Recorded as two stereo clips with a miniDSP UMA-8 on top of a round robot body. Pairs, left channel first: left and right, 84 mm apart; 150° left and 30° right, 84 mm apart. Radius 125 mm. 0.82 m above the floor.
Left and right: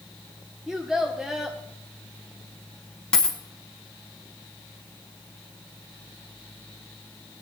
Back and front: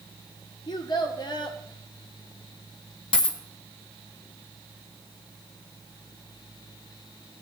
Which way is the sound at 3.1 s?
170° left.